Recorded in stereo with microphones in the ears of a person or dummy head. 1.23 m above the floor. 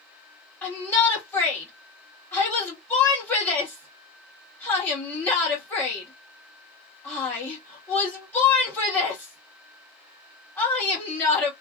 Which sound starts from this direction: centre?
A shout, at 0.6 s.